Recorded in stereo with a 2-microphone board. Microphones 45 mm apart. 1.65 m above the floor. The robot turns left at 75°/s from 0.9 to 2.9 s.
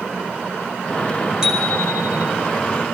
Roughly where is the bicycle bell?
Behind.